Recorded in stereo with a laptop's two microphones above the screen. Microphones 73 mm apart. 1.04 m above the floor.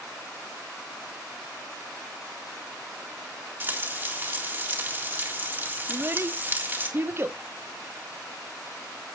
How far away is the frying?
About 1.8 m.